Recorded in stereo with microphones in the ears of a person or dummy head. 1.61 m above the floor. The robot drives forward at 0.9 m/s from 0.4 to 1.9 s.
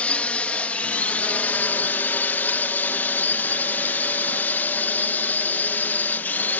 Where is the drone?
5° left (ahead or behind); by 6.6 s 10° left (ahead or behind).